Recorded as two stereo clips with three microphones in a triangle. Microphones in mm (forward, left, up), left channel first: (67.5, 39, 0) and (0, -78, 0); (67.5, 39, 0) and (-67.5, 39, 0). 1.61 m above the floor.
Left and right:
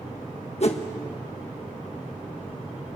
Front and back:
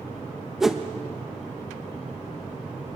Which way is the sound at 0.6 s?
95° left.